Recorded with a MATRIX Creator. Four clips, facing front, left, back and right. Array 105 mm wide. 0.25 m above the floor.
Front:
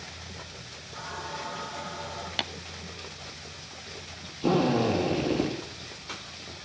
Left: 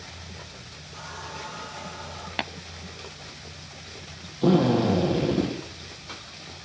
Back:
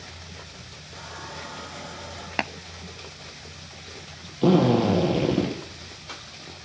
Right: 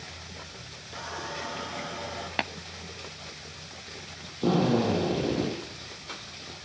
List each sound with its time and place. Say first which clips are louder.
0.9 s a running tap: right 2 dB, front 2 dB; 100° right, 3.5 m
2.4 s tapping: even, back 9 dB; 170° right, 0.5 m
4.4 s a drill: left 4 dB, back 5 dB; 170° left, 8.5 m